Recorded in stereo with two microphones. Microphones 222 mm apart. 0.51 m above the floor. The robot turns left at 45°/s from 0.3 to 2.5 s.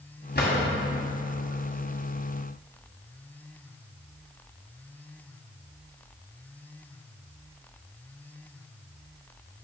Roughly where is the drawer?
Left.